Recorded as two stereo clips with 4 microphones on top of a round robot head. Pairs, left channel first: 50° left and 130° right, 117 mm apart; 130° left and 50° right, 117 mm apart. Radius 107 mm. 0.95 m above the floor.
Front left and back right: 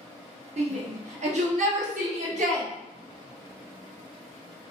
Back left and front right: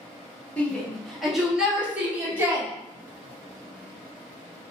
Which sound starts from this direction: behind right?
A shout, at 0.6 s.